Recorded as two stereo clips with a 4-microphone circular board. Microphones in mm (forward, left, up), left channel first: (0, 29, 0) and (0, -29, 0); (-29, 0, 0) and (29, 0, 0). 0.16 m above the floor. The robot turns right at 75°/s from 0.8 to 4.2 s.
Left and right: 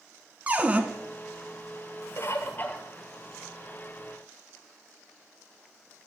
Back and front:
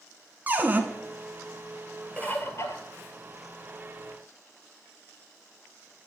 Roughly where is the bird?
Left.